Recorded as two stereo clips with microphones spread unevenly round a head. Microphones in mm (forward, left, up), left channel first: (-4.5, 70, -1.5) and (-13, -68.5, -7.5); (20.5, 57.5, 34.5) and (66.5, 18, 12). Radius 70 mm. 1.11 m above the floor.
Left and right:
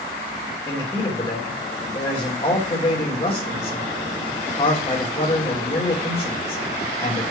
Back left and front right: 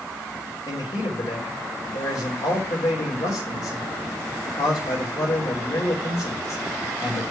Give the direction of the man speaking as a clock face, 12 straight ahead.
7 o'clock.